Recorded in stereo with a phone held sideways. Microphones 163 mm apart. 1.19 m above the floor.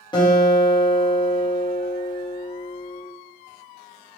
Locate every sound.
0.1 s a guitar: 30° left (ahead or behind), 1.7 m